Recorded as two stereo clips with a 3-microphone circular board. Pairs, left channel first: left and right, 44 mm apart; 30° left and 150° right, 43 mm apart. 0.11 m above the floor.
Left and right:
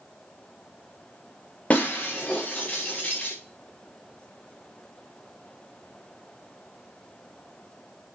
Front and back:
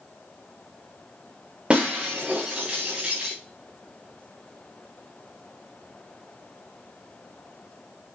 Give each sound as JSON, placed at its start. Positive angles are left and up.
{"t": 1.7, "sound": "breaking glass", "azimuth_deg": 145, "distance_m": 6.0}